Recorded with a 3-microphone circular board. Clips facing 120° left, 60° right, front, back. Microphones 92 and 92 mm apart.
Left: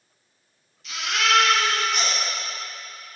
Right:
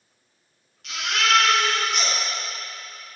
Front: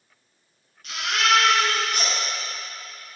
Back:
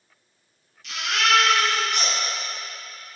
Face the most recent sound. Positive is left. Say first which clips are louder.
# even, front 1 dB
turn(degrees=-40)